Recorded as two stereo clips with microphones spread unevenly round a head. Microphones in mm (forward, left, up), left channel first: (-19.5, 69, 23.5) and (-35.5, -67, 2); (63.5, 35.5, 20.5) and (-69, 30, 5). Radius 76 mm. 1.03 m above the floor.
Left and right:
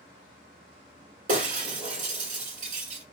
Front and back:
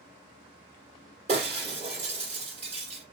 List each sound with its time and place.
1.3 s breaking glass: 125° right, 2.0 m